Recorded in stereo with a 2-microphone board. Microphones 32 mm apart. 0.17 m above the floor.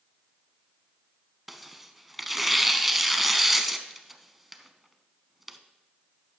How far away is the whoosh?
I don't hear a whoosh.